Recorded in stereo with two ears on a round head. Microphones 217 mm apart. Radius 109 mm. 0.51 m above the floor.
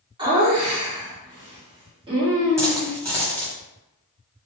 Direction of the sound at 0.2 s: 20° right (ahead or behind).